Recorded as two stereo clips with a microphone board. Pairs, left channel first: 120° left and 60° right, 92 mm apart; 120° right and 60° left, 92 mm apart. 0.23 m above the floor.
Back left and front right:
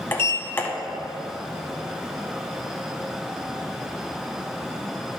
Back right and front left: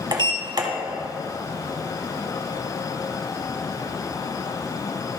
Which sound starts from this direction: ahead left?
A sliding door, at 0.1 s.